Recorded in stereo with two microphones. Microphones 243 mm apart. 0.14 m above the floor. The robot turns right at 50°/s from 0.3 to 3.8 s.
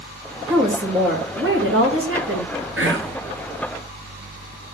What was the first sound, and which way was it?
A woman speaking, 170° right.